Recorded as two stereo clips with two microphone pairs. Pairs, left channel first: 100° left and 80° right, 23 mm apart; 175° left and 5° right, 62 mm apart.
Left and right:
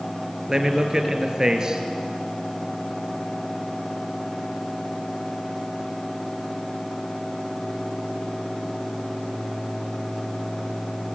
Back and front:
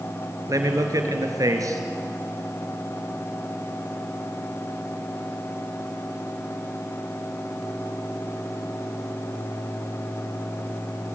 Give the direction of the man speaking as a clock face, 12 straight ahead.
1 o'clock.